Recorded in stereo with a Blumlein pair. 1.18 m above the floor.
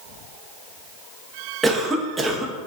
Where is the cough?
15° right, 0.8 m.